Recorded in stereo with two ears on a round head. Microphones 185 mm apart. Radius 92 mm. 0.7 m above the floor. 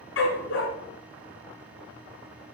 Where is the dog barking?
65° left (ahead or behind), 2 m.